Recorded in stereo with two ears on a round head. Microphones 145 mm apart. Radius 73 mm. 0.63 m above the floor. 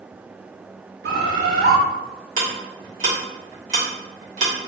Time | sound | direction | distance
1.0 | a bird | 70° right (ahead or behind) | 0.6 m
2.4 | ticking | 50° right (ahead or behind) | 1.1 m